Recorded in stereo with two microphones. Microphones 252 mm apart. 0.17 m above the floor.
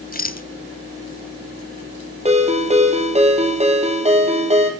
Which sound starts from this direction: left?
A rattle, at 0.1 s.